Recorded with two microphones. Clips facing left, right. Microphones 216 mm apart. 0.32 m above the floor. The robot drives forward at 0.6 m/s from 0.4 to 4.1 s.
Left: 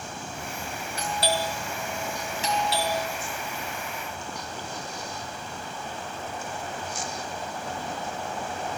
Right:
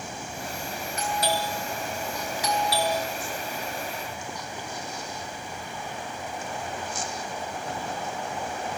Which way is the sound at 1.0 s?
30° left (ahead or behind).